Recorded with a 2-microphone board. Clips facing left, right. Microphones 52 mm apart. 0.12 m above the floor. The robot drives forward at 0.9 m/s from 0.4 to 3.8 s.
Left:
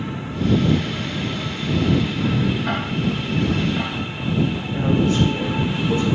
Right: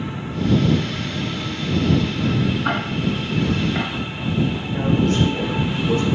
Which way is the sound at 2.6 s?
65° right (ahead or behind).